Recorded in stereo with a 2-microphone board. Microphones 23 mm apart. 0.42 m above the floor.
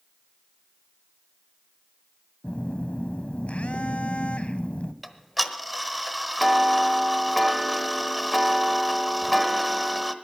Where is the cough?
I don't hear a cough.